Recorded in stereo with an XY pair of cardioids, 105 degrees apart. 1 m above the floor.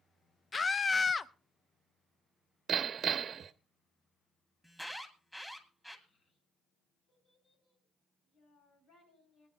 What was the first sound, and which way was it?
A scream, 30° left.